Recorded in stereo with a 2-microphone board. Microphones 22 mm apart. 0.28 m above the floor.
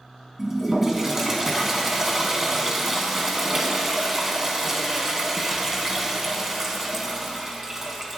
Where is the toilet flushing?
20° right (ahead or behind), 2 m.